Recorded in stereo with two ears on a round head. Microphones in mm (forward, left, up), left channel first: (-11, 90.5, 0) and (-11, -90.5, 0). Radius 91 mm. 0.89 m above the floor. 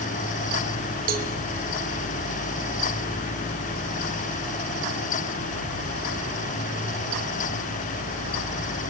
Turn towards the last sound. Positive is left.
turn(degrees=-45)  # may be behind; listen again after turning